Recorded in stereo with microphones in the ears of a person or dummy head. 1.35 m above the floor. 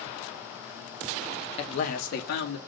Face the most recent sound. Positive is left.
turn(degrees=55)  # may be behind; listen again after turning